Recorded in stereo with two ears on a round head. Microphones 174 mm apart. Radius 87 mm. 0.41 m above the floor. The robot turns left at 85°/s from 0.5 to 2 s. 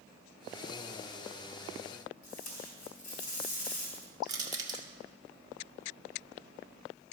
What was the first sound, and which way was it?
Tape being pulled, 40° left (ahead or behind).